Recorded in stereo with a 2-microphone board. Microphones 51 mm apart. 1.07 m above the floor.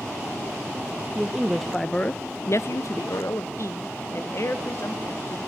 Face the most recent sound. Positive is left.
turn(degrees=50)  # may be behind; listen again after turning